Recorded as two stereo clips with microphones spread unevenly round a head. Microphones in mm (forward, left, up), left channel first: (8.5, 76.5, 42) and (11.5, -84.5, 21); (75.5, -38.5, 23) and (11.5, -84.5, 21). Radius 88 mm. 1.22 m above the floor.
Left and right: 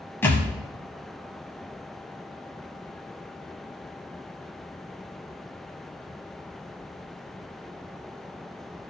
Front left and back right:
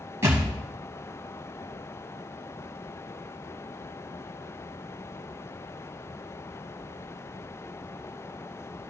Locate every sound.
0.2 s a thud: 155° left, 1.4 m